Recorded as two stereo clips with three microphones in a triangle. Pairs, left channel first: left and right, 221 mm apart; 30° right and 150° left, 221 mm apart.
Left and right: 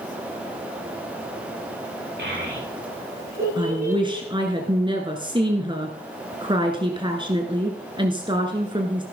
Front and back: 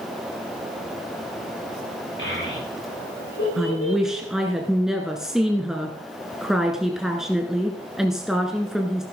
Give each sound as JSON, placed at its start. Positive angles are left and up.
{"t": 2.2, "sound": "a child speaking", "azimuth_deg": -55, "distance_m": 7.0}
{"t": 3.6, "sound": "a woman speaking", "azimuth_deg": -125, "distance_m": 1.4}